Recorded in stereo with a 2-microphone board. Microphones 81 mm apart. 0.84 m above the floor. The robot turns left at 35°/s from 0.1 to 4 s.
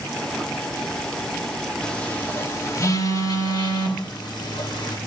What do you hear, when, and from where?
1.8 s a phone buzzing: 10° left (ahead or behind), 2.0 m; by 5.0 s 70° left (ahead or behind), 2.0 m